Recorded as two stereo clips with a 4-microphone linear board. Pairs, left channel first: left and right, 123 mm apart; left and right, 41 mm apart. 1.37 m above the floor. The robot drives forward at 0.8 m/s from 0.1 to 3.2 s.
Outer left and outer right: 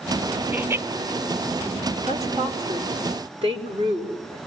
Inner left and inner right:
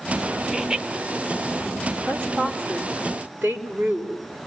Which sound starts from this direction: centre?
Laughter, at 0.5 s.